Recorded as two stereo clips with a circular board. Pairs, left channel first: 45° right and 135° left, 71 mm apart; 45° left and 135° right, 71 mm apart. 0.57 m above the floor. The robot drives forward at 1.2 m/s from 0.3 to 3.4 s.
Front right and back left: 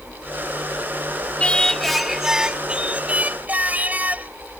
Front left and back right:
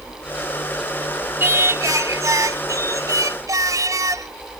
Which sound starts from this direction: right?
Singing, at 1.4 s.